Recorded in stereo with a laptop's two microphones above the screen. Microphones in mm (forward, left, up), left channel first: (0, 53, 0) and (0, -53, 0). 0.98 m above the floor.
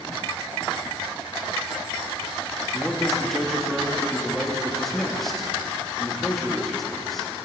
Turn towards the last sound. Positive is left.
turn(degrees=0)  # may be behind; listen again after turning